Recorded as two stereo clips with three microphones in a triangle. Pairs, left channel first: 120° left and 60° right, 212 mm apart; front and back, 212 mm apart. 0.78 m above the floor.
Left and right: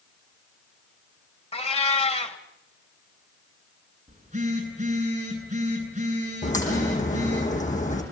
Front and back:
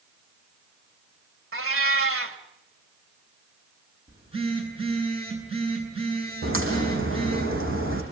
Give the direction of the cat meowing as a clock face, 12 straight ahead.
6 o'clock.